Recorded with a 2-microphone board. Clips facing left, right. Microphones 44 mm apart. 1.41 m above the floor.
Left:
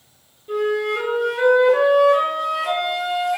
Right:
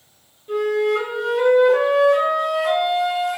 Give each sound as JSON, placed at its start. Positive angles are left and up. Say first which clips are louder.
{"t": 0.5, "sound": "a flute", "louder": "right 2 dB", "side_deg": -5, "distance_m": 1.2}